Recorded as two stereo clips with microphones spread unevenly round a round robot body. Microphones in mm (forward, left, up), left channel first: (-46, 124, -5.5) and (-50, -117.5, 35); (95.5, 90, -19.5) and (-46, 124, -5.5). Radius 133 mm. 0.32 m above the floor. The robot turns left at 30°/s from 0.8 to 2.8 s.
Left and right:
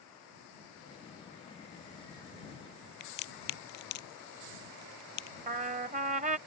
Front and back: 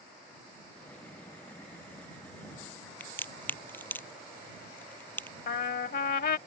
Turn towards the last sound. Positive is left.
turn(degrees=-25)